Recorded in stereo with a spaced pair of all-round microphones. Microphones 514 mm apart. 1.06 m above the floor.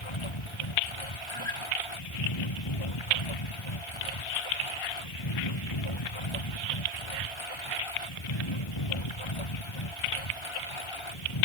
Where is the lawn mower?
60° left (ahead or behind).